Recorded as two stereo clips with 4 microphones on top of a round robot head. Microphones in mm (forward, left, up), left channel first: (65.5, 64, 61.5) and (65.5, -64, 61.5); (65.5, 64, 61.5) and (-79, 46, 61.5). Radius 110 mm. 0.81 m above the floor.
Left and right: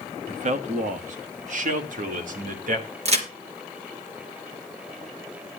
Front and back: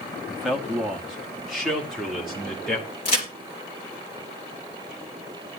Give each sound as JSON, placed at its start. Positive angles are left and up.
{"t": 0.3, "sound": "a man speaking", "azimuth_deg": -85, "distance_m": 1.3}
{"t": 3.0, "sound": "a crack", "azimuth_deg": -55, "distance_m": 3.0}